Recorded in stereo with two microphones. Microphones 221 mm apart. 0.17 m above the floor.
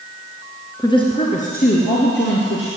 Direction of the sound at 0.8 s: 15° left (ahead or behind).